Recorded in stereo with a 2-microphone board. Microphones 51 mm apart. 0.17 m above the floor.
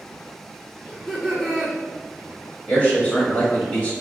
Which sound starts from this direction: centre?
Laughter, at 0.9 s.